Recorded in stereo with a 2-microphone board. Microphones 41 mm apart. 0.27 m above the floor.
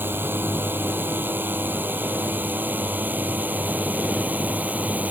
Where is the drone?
60° right (ahead or behind); by 5.1 s 40° right (ahead or behind).